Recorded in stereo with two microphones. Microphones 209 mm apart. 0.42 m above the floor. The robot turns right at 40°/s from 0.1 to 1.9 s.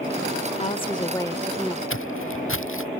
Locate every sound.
0.6 s a woman speaking: 130° left; by 1.8 s straight behind
1.9 s footsteps: 75° left (ahead or behind)